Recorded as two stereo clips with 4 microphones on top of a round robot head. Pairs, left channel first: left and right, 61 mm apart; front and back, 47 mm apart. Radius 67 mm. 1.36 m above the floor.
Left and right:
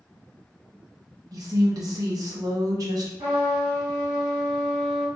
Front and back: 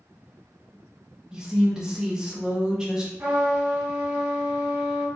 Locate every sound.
1.3 s a woman speaking: 105° right, 1.0 m
3.2 s a trumpet: 125° right, 1.8 m